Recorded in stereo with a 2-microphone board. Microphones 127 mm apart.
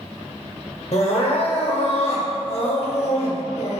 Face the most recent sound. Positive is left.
turn(degrees=55)  # may be behind; listen again after turning